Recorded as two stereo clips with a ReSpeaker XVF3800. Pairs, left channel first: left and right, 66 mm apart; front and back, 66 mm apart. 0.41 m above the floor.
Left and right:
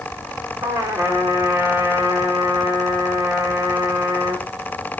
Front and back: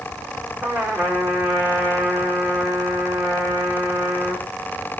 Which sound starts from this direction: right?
A trumpet, at 0.6 s.